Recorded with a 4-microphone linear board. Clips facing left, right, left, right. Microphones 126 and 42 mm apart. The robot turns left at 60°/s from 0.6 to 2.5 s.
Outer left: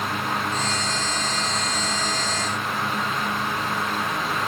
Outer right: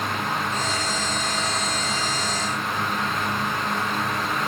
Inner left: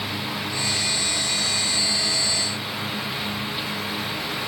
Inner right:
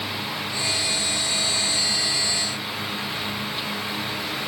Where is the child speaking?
I don't hear a child speaking.